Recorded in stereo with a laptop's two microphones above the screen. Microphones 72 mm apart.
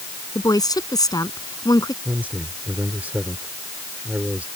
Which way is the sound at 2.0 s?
25° right (ahead or behind).